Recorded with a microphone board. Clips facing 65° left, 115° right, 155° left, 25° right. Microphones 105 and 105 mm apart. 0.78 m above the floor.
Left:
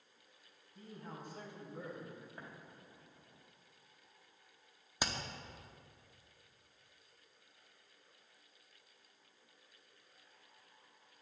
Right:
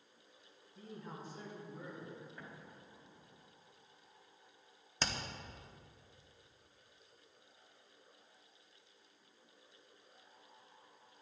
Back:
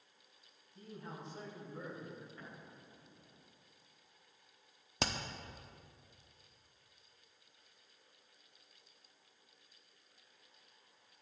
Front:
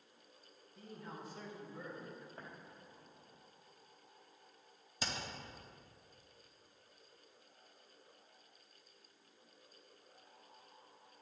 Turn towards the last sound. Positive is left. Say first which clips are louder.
# even, back 5 dB
turn(degrees=145)